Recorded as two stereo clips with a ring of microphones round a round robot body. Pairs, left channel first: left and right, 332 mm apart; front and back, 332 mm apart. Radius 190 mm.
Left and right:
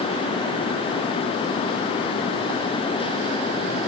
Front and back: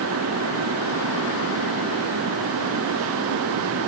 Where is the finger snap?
No finger snap in this recording.